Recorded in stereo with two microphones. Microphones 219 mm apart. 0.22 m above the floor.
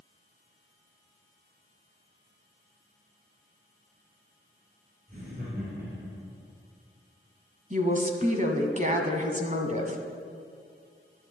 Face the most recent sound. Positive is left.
turn(degrees=-35)  # may be behind; listen again after turning